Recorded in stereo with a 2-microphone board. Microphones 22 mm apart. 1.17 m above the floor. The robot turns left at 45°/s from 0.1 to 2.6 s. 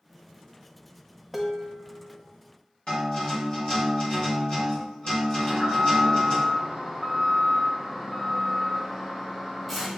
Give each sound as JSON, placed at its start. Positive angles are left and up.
{"t": 1.3, "sound": "dishes clattering", "azimuth_deg": -170, "distance_m": 0.5}
{"t": 2.9, "sound": "a guitar", "side_deg": 45, "distance_m": 1.9}
{"t": 5.4, "sound": "an alarm", "side_deg": 5, "distance_m": 1.8}